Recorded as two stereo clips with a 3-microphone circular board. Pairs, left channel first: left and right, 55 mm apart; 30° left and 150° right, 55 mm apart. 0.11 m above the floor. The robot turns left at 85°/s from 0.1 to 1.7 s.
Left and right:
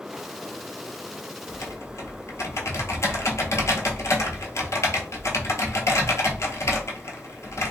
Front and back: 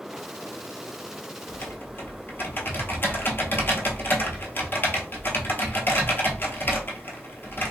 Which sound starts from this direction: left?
Typing on a keyboard, at 1.5 s.